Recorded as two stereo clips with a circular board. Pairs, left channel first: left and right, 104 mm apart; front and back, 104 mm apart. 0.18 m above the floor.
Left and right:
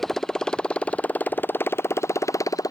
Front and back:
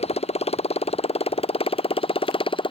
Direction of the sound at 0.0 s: Straight ahead.